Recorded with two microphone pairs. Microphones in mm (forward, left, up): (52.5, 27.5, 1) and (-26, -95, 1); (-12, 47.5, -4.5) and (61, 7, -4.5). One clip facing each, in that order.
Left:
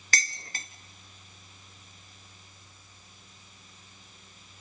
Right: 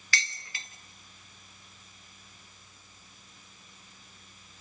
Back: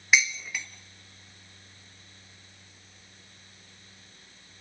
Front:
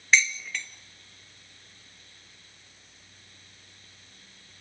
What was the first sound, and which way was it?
Dishes clattering, 75° left.